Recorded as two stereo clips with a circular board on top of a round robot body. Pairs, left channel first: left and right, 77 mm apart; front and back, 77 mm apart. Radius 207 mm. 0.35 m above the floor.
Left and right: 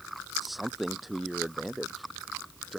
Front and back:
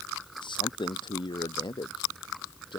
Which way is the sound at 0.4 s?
Straight ahead.